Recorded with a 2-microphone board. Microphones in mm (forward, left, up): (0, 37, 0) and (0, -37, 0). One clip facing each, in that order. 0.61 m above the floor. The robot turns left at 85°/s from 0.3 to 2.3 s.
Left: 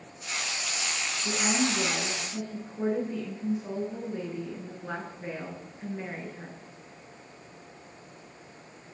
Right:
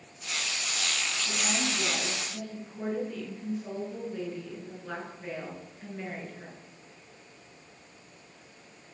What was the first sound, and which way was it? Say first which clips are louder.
A woman speaking: left 6 dB; 110° left.